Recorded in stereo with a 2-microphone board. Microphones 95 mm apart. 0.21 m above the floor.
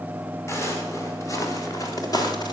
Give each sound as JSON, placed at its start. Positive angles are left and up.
{"t": 0.5, "sound": "footsteps", "side_deg": 30, "distance_m": 4.5}